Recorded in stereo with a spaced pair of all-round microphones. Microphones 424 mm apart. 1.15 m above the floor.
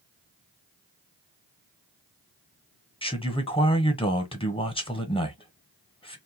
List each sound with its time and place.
3.0 s a man speaking: 15° left (ahead or behind), 0.8 m